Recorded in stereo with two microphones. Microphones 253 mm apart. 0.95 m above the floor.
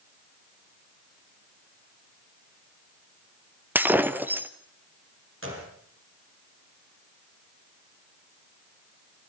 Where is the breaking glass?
5° right (ahead or behind), 1.0 m.